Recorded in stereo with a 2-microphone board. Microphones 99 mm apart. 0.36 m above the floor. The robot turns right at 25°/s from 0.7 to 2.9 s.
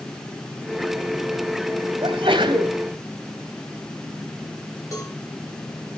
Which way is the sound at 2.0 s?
60° right (ahead or behind).